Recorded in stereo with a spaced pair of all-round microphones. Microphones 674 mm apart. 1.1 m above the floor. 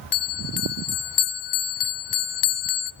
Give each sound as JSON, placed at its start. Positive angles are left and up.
{"t": 0.1, "sound": "a bell", "side_deg": 80, "distance_m": 0.7}